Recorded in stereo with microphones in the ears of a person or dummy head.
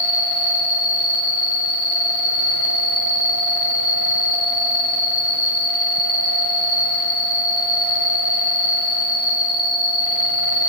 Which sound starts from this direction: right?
An insect, at 0.0 s.